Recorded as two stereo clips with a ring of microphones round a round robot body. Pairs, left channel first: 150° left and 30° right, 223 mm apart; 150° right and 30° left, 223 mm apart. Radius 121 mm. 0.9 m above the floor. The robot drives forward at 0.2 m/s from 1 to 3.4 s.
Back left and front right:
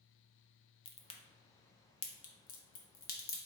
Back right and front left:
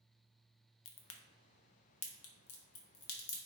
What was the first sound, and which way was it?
A crack, 145° right.